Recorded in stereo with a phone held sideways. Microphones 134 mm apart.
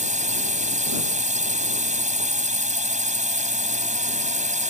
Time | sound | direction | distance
0.0 | a drone | 65° right (ahead or behind) | ?